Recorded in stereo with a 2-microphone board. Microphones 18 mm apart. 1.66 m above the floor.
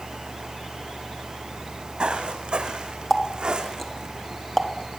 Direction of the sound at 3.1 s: 10° left (ahead or behind).